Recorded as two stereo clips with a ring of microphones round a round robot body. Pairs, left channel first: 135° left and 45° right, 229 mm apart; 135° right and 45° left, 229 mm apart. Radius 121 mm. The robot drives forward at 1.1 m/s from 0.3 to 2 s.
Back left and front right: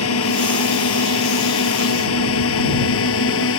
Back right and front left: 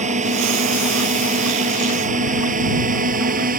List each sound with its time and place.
0.0 s a drone: 105° left; by 3.6 s 100° left